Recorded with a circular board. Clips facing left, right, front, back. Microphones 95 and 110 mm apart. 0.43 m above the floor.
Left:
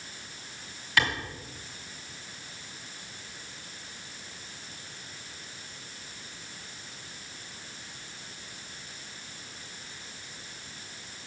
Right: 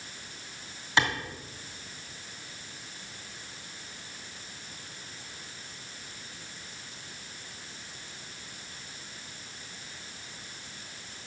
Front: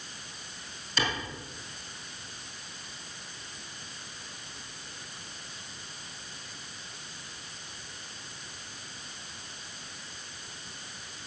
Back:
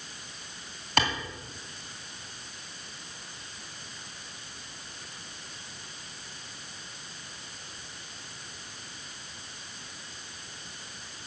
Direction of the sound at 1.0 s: 155° right.